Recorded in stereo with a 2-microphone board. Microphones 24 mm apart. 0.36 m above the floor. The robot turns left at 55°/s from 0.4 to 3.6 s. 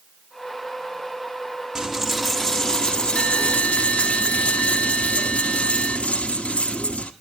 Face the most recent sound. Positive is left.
turn(degrees=95)